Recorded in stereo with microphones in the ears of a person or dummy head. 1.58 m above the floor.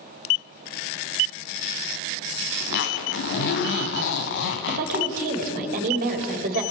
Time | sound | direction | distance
2.6 | a zipper | 60° left (ahead or behind) | 2.5 m
4.7 | a woman speaking | 45° right (ahead or behind) | 4.5 m